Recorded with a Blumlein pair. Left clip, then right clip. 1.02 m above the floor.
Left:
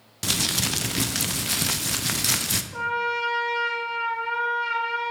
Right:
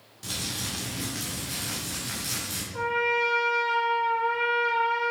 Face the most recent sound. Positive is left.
turn(degrees=30)